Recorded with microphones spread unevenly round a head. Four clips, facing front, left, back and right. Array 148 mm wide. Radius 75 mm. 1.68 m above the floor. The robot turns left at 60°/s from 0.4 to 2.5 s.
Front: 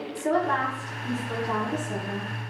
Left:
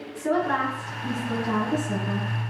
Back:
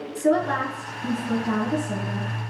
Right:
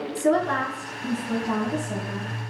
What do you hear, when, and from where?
0.1 s a woman speaking: 140° right, 1.5 m; by 2.3 s 110° left, 1.5 m